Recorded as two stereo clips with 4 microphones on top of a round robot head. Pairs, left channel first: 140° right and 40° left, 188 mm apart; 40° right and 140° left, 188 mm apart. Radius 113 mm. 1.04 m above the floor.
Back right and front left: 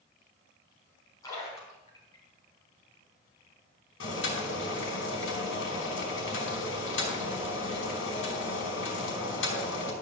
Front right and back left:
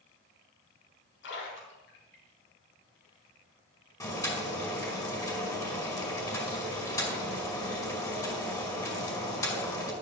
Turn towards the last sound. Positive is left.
turn(degrees=-115)